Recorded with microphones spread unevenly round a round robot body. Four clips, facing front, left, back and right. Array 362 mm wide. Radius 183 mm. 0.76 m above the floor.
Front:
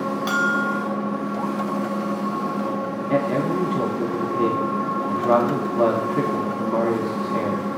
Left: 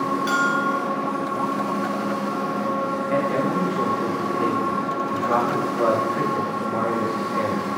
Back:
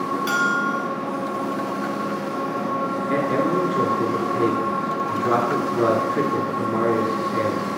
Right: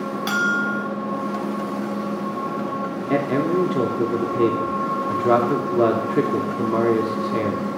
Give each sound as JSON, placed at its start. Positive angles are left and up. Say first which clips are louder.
{"t": 0.3, "sound": "a bell", "louder": "right 2 dB, front 1 dB", "azimuth_deg": -110, "distance_m": 1.3}
{"t": 3.1, "sound": "a man speaking", "louder": "right 3 dB, even", "azimuth_deg": -100, "distance_m": 2.0}